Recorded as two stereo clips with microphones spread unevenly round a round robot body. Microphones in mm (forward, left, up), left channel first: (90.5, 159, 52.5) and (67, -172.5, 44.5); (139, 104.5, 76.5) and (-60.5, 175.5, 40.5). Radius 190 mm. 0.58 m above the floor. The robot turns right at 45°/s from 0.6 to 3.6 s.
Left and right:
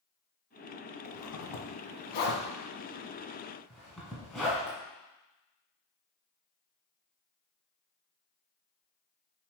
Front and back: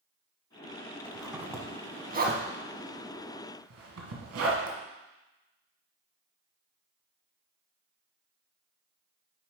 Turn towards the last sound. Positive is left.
turn(degrees=175)